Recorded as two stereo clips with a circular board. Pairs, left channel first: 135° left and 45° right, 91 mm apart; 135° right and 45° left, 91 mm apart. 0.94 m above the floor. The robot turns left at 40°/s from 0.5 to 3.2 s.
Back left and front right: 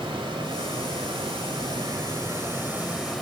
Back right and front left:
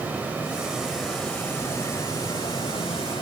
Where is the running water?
25° right, 1.8 m; by 3.2 s 135° right, 1.8 m.